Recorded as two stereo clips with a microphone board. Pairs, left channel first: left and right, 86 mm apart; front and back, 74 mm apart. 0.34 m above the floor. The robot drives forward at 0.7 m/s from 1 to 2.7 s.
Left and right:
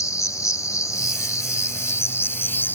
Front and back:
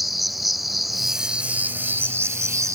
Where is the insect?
90° left; by 2.8 s 150° left.